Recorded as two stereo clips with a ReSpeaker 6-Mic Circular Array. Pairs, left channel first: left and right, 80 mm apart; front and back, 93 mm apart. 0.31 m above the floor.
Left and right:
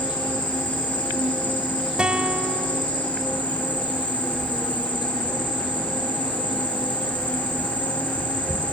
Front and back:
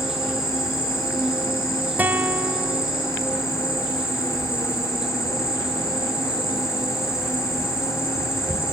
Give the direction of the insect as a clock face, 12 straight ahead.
9 o'clock.